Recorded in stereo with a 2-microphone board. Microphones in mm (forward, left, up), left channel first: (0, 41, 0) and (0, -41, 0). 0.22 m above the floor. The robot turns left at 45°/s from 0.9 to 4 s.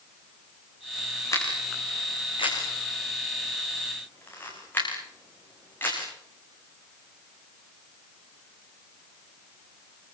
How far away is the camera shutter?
About 8 m.